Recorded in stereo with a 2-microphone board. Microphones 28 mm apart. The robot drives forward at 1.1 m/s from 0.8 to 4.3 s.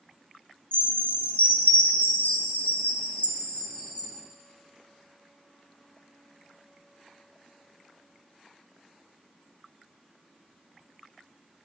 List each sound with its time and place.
0.7 s a chime: 40° left (ahead or behind), 2 m; by 4.1 s 35° left (ahead or behind), 2.5 m